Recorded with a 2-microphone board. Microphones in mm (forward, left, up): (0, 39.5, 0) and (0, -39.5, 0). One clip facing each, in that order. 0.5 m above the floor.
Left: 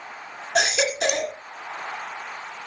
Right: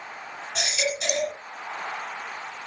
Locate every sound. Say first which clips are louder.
0.6 s a baby crying: left 7 dB; 85° left, 1.8 m